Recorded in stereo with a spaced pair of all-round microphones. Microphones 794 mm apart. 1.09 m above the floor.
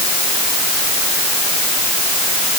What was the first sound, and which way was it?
Only background noise.